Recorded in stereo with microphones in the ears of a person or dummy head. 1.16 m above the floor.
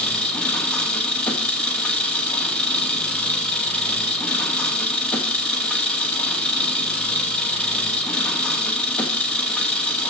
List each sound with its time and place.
0.0 s an engine running: 5° left (ahead or behind), 2.5 m